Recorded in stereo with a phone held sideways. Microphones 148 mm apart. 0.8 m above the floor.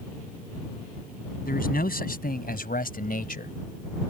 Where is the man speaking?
85° left; by 3.5 s 75° left (ahead or behind).